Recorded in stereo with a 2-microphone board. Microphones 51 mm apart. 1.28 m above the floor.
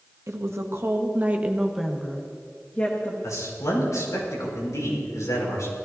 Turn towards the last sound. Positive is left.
turn(degrees=85)